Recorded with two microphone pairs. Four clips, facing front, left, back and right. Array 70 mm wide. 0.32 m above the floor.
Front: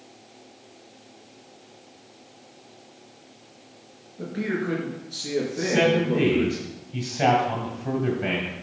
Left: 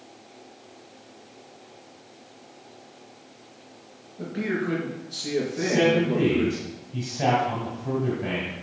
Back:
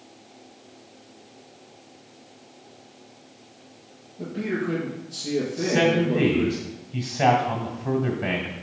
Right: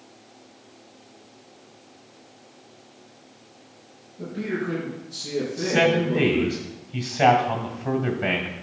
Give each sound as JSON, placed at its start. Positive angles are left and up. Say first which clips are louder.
{"t": 4.2, "sound": "a man speaking", "louder": "left 1 dB, even", "azimuth_deg": 45, "distance_m": 5.0}
{"t": 5.6, "sound": "a man speaking", "louder": "right 1 dB, even", "azimuth_deg": -85, "distance_m": 1.8}